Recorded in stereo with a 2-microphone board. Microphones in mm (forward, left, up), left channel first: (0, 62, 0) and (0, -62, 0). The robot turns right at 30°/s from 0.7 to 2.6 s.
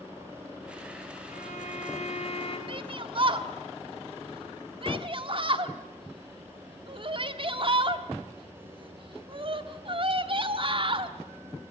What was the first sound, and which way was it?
A violin, 85° left.